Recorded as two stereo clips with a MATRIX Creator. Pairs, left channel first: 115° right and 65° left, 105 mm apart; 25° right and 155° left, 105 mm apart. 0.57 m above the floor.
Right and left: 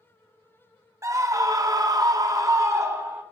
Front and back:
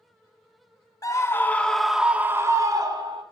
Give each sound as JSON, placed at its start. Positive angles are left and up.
{"t": 1.0, "sound": "a scream", "azimuth_deg": 20, "distance_m": 0.8}